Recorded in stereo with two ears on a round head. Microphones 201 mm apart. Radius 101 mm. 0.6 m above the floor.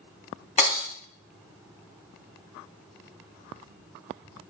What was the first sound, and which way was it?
Breaking glass, 30° left (ahead or behind).